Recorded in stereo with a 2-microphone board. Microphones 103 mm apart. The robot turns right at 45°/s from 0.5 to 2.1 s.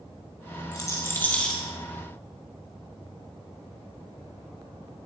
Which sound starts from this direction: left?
A rattle, at 0.7 s.